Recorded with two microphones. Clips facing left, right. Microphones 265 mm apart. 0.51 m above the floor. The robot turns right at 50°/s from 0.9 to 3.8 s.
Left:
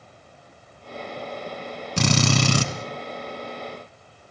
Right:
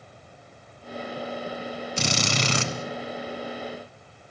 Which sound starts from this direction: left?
A drill, at 2.0 s.